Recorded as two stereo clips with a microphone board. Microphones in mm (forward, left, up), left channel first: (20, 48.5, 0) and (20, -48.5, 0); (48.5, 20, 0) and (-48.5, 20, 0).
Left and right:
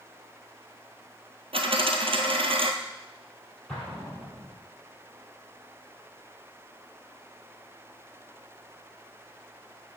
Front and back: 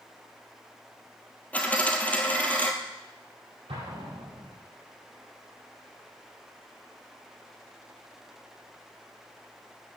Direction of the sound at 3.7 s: Straight behind.